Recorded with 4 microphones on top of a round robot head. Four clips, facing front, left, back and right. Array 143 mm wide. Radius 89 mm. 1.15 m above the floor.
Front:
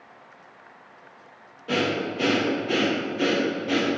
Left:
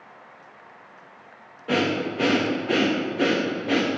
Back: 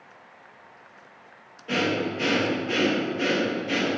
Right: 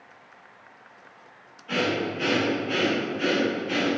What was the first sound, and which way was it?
Breathing, 70° left.